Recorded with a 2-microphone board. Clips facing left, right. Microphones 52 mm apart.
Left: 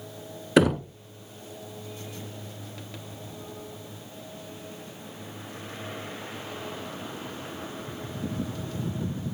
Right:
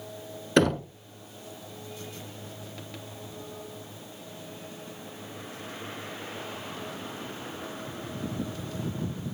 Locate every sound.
0.6 s knocking: 10° left (ahead or behind), 0.8 m